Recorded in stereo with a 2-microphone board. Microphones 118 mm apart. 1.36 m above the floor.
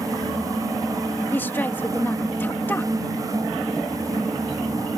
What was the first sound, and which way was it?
A woman speaking, 15° left (ahead or behind).